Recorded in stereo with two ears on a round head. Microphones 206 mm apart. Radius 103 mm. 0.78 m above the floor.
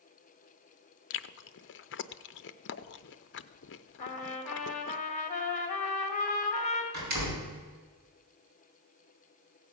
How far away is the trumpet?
About 1.9 m.